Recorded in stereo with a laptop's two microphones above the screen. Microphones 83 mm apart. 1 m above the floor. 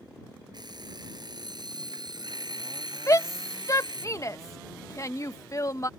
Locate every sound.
0.5 s an alarm clock: 60° right (ahead or behind)
3.1 s a shout: 40° left (ahead or behind)